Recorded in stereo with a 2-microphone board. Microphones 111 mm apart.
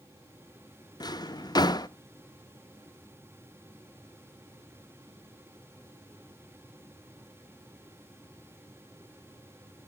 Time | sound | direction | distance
1.0 | a drawer | 40° left (ahead or behind) | 0.6 m